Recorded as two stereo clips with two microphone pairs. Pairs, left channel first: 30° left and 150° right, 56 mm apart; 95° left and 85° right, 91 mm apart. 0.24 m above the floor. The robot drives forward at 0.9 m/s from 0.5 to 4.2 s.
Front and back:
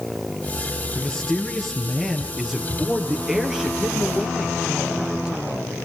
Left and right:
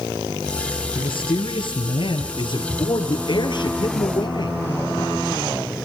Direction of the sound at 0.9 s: 95° left.